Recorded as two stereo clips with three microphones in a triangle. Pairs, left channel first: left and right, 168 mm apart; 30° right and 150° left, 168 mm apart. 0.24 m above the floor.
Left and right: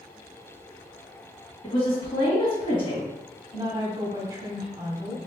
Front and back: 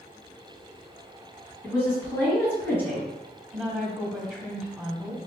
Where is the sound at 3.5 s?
130° right, 1.2 m.